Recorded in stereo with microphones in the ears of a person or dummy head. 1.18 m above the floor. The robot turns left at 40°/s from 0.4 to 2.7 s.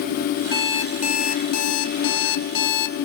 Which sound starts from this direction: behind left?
An alarm clock, at 0.5 s.